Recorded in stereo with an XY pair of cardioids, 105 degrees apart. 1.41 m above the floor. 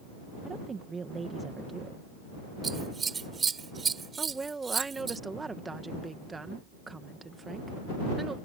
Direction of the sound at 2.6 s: 35° right.